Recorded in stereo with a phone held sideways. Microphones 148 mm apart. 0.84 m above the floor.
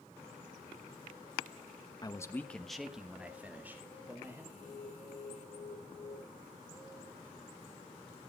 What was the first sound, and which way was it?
A man speaking, 25° left (ahead or behind).